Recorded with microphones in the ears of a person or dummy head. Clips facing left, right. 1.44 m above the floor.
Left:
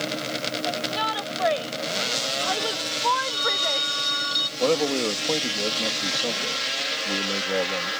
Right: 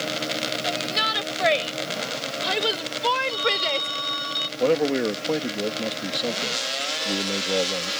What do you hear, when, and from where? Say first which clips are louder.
0.6 s a shout: left 1 dB; 30° right (ahead or behind); by 3.9 s 40° right (ahead or behind)
3.3 s a phone ringing: right 3 dB; 25° left (ahead or behind)
4.6 s a man speaking: right 2 dB; 10° right (ahead or behind)